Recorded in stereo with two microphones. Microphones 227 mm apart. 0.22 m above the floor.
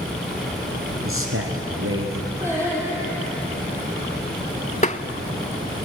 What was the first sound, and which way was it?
A man speaking, 70° right (ahead or behind).